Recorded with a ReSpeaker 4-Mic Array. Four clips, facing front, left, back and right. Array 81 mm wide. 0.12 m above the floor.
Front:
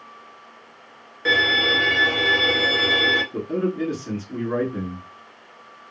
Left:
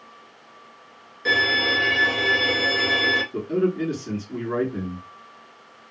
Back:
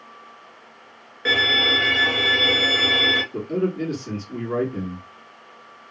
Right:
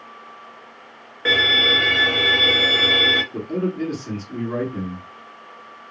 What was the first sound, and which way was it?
A violin, 100° right.